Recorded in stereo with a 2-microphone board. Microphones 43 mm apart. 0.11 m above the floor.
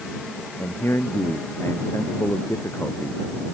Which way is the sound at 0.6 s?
80° left.